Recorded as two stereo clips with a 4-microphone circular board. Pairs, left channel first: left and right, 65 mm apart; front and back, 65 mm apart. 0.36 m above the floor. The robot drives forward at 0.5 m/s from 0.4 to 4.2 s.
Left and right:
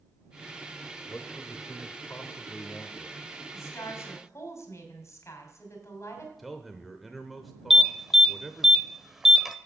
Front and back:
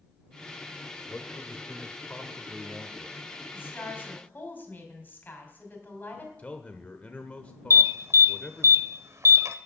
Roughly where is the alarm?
Behind.